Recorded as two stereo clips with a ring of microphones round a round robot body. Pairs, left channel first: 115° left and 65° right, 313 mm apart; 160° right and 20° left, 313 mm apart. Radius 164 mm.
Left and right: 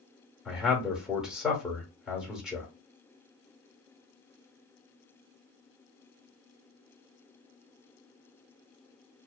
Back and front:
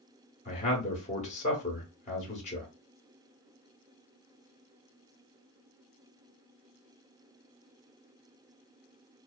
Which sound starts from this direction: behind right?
A man speaking, at 0.5 s.